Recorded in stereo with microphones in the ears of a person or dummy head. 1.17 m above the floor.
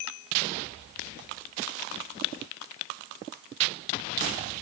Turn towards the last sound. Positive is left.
No sound to turn to.